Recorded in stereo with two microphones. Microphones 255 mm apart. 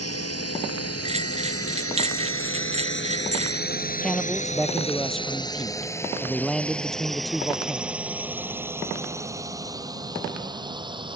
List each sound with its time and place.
0.0 s a drone: 75° left (ahead or behind); by 11.2 s 20° right (ahead or behind)
1.1 s a bell: 25° right (ahead or behind)
4.0 s a man speaking: centre (ahead or behind)